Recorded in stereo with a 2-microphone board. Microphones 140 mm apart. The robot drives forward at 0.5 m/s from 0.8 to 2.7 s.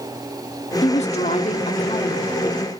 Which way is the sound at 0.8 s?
55° left (ahead or behind).